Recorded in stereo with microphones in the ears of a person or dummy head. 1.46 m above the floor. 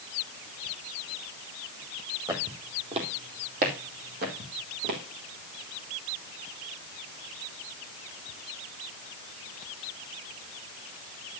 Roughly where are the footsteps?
Right.